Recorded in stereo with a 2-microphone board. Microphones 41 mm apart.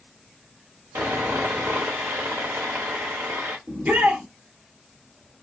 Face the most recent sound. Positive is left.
turn(degrees=-50)  # may be behind; listen again after turning